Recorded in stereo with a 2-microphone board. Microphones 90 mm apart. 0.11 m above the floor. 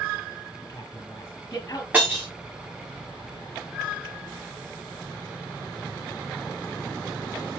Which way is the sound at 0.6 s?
35° left (ahead or behind).